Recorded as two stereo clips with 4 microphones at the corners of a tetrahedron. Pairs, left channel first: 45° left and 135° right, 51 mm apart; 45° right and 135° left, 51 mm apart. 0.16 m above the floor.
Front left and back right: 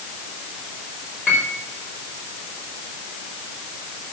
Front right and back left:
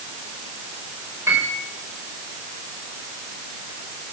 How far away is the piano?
About 5 m.